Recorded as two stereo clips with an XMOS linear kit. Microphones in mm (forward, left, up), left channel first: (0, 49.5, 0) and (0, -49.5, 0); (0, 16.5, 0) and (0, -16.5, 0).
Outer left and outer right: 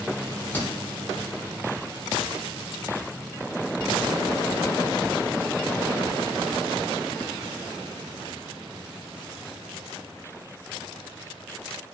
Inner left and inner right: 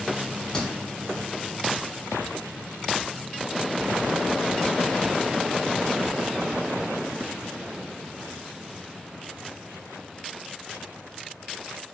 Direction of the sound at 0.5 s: 20° left (ahead or behind).